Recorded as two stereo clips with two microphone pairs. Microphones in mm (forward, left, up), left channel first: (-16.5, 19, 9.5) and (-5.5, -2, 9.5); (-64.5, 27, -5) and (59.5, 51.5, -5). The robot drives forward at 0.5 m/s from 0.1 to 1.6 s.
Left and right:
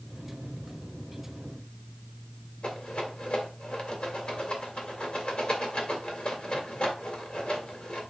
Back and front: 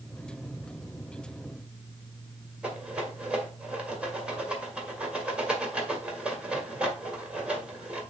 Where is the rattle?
90° left, 1.8 m.